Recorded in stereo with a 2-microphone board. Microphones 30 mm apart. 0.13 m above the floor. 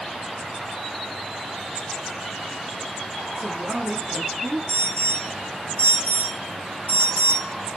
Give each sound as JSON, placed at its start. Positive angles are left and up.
{"t": 3.4, "sound": "a woman speaking", "side_deg": -60, "distance_m": 2.5}
{"t": 4.7, "sound": "an alarm", "side_deg": 60, "distance_m": 7.5}